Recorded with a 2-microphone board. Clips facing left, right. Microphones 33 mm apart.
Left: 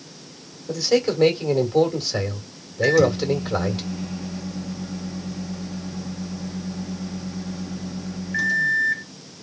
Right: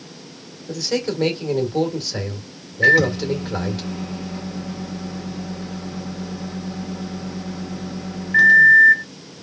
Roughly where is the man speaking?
Centre.